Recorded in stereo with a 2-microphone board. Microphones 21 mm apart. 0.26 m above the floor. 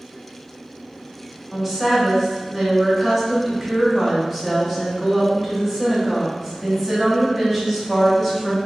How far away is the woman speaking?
About 1.6 m.